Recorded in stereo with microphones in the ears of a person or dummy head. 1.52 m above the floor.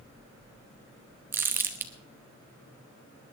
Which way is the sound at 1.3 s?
10° right (ahead or behind).